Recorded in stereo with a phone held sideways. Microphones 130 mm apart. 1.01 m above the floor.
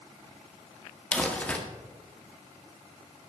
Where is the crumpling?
10° left (ahead or behind), 1.5 m.